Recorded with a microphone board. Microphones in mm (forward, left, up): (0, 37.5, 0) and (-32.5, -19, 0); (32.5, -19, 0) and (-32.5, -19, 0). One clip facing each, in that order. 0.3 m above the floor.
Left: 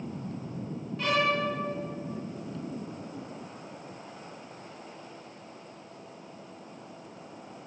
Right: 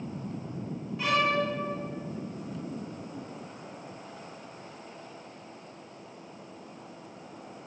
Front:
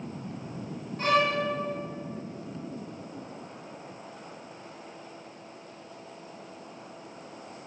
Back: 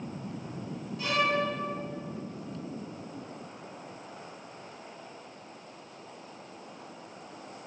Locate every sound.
1.0 s a violin: 35° right, 1.6 m